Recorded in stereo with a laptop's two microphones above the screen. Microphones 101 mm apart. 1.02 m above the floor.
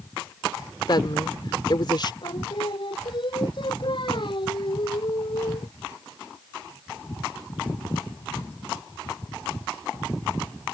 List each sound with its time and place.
0.9 s a woman speaking: 50° left (ahead or behind)
2.2 s singing: 55° left (ahead or behind)